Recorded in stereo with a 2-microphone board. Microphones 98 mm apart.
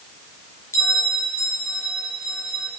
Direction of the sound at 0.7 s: 25° left (ahead or behind).